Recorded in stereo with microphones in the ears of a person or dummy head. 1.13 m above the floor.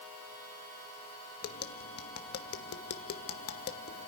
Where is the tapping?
55° left (ahead or behind), 1.1 m.